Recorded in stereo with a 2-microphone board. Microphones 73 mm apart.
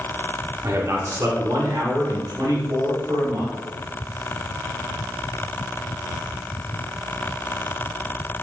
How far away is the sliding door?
No sliding door in this recording.